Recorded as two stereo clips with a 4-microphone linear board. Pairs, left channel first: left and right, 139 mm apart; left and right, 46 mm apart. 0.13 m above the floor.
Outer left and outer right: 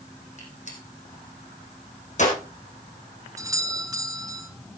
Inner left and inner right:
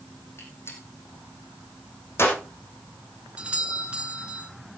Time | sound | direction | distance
0.4 | a gunshot | 55° left (ahead or behind) | 5 m
3.4 | a doorbell | 20° right (ahead or behind) | 1.5 m